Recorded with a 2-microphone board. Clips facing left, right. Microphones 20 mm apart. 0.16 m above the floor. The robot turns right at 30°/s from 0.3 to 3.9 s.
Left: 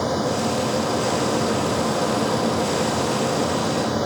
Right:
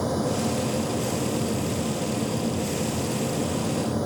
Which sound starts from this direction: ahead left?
An aircraft, at 0.0 s.